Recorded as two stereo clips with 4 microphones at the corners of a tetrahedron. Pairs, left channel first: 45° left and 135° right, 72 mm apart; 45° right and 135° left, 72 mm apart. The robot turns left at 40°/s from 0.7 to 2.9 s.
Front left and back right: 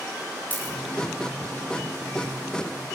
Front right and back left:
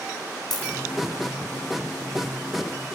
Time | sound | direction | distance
0.5 | a dropped coin | 20° right | 6 m